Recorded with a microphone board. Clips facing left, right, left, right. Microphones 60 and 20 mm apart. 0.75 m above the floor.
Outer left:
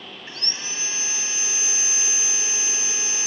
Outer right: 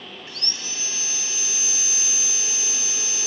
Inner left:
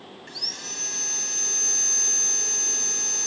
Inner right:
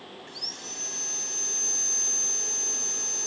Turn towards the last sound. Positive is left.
turn(degrees=30)  # may be behind; listen again after turning